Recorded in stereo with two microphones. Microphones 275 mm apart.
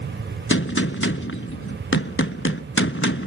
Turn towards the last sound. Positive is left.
turn(degrees=45)  # may be behind; listen again after turning